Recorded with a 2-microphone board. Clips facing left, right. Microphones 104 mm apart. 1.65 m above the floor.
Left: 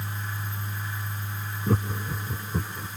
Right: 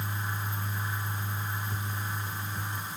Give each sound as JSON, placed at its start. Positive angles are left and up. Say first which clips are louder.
{"t": 1.7, "sound": "laughter", "louder": "left 8 dB", "side_deg": 85}